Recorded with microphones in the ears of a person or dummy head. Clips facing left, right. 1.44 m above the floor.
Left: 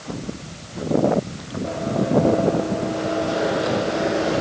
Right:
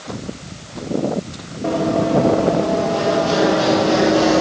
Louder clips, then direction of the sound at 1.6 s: Right 6 dB; 65° right (ahead or behind).